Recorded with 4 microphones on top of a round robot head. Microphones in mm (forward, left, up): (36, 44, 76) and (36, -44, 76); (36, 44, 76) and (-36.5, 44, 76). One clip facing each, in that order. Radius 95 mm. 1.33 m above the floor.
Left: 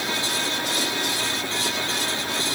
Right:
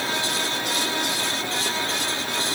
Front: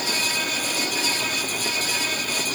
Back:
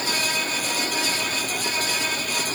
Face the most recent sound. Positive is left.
No sound to turn to.